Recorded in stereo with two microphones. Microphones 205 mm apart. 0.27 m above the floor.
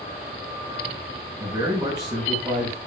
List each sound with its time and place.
1.4 s a man speaking: 25° right (ahead or behind), 2.5 m